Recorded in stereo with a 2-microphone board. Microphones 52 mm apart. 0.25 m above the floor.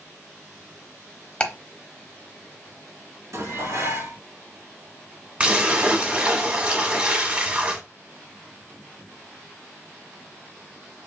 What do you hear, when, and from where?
1.4 s ticking: 20° left (ahead or behind), 0.9 m
3.3 s dishes clattering: 70° right (ahead or behind), 2.5 m
5.4 s a splash: 25° right (ahead or behind), 1.2 m